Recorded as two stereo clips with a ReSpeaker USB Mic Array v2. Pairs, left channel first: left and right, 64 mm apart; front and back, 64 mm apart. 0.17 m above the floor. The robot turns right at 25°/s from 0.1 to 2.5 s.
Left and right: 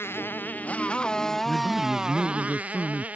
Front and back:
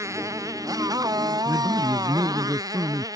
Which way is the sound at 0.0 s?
145° left.